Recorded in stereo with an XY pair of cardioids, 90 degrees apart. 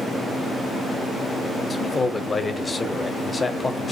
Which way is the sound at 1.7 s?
30° left.